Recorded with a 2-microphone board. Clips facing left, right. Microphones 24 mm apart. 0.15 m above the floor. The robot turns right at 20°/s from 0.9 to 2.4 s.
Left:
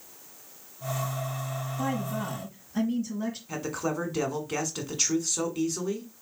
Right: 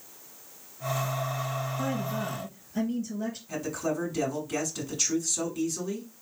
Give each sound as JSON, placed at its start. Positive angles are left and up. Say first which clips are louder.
{"t": 1.8, "sound": "a woman speaking", "louder": "left 3 dB", "side_deg": -5, "distance_m": 3.0}
{"t": 3.5, "sound": "a man speaking", "louder": "right 1 dB", "side_deg": 20, "distance_m": 1.3}